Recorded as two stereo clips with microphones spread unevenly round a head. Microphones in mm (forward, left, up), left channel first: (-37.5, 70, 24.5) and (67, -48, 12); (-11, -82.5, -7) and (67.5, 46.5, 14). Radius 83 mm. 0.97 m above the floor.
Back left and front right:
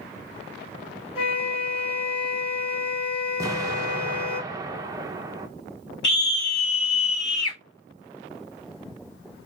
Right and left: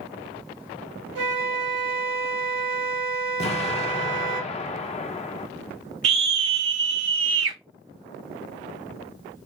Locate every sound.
1.1 s a flute: 80° left, 2.5 m
3.4 s an explosion: 110° right, 0.6 m
6.0 s a scream: 65° left, 2.5 m